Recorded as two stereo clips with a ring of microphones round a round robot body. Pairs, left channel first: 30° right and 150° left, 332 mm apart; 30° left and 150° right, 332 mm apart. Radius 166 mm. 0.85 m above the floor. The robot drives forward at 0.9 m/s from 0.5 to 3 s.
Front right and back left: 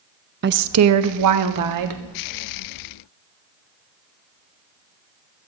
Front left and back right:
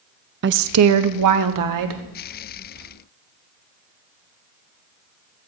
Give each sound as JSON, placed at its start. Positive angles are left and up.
{"t": 0.4, "sound": "a woman speaking", "azimuth_deg": 180, "distance_m": 0.5}